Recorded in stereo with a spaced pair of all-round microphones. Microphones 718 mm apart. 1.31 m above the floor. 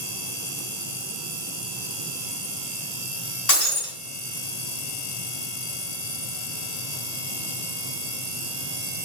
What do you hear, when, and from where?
3.5 s breaking glass: 60° left (ahead or behind), 2 m